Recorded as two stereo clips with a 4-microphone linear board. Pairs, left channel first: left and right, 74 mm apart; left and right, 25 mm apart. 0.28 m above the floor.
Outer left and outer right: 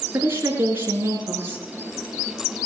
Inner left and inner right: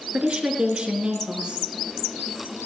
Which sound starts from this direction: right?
A woman speaking, at 0.1 s.